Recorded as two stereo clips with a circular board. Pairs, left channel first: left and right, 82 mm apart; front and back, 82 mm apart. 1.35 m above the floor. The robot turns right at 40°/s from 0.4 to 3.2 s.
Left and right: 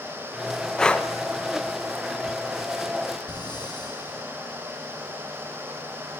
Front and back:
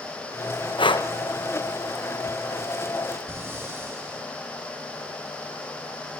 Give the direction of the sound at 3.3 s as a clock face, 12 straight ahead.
8 o'clock.